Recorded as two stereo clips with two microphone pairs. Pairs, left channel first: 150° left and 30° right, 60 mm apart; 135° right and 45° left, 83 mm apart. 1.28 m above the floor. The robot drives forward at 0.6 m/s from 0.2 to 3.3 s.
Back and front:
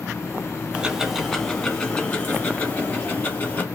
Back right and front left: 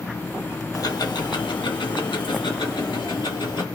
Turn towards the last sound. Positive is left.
turn(degrees=-155)